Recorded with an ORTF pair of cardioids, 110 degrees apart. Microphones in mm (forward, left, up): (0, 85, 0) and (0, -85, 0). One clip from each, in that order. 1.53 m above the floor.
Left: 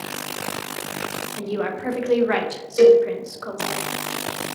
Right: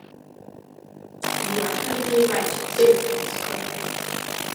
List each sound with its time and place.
1.4 s a woman speaking: 60° left, 0.7 m
2.8 s a cowbell: 35° left, 0.9 m